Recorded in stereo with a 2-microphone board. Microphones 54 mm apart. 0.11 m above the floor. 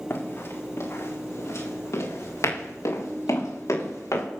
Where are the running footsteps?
50° left (ahead or behind), 4 m; by 4.2 s 80° left, 8 m.